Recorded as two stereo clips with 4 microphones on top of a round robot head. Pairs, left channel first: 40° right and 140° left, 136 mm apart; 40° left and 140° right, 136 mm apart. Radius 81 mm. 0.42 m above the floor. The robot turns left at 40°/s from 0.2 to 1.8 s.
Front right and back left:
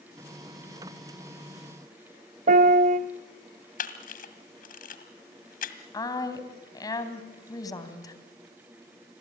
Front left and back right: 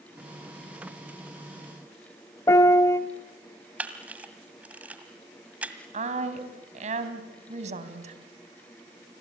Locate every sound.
2.5 s a piano: 110° left, 0.9 m
3.8 s a camera shutter: 60° right, 1.8 m
5.9 s a woman speaking: 105° right, 2.5 m